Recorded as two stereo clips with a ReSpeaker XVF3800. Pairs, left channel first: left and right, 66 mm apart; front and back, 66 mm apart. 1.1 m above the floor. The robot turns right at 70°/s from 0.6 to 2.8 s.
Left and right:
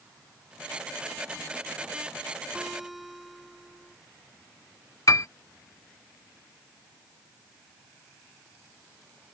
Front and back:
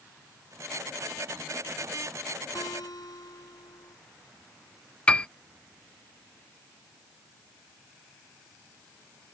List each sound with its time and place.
2.5 s a guitar: 20° right; by 4.0 s straight ahead
5.1 s a piano: 70° left